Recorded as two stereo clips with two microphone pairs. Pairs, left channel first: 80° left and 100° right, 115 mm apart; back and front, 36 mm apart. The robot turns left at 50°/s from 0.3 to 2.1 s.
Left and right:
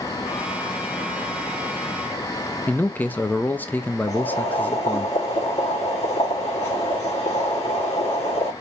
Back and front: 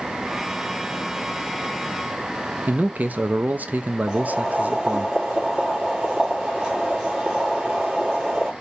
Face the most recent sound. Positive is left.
turn(degrees=75)